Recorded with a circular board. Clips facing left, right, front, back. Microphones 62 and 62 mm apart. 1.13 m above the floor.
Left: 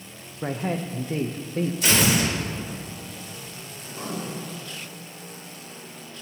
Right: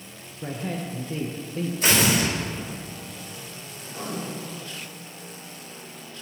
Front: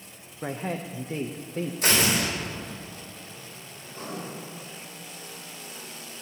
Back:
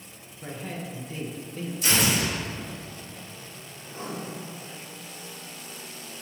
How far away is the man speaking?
About 0.6 m.